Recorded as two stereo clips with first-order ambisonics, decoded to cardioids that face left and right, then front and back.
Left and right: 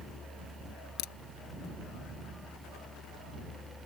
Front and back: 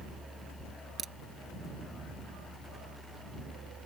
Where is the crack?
110° left.